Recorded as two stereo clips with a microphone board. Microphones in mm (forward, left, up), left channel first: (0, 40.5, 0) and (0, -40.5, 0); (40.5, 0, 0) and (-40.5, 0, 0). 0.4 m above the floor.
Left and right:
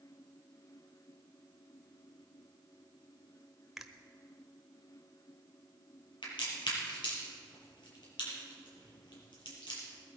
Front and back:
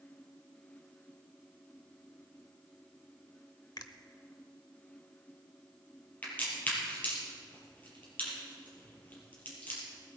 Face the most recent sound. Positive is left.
turn(degrees=70)